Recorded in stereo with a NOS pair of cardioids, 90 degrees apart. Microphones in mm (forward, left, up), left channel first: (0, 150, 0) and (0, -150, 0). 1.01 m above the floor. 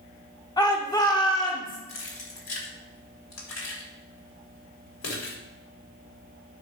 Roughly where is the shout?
Ahead.